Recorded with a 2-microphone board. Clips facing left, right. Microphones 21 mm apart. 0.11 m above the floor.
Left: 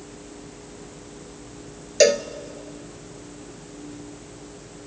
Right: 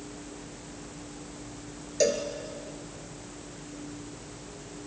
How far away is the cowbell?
About 0.8 m.